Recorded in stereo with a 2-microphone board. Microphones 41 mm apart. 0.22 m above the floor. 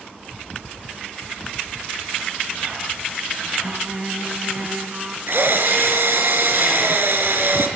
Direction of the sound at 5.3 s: 60° right (ahead or behind).